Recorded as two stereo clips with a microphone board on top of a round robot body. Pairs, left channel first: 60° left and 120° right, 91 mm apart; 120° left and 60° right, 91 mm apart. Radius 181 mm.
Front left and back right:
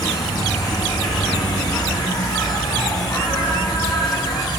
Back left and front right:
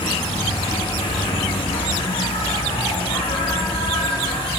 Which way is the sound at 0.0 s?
105° left.